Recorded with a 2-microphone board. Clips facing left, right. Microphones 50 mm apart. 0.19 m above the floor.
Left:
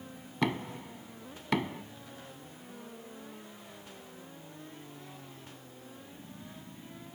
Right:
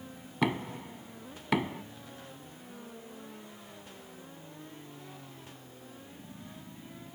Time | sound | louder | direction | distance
0.4 | knocking | right 1 dB | 10° right (ahead or behind) | ?